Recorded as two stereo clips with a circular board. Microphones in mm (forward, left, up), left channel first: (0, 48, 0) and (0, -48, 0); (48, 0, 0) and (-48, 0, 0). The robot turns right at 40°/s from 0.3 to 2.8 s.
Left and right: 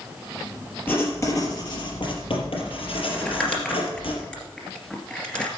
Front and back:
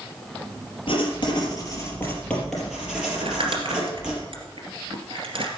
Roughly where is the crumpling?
Behind.